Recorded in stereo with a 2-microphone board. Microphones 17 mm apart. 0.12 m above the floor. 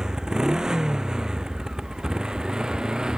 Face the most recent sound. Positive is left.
turn(degrees=-50)  # may be behind; listen again after turning